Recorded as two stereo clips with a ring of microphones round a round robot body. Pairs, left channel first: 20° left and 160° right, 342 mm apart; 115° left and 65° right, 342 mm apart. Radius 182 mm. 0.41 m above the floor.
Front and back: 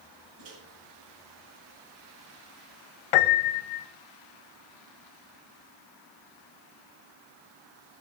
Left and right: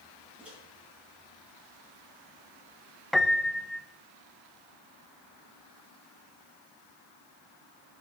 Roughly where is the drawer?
I don't hear a drawer.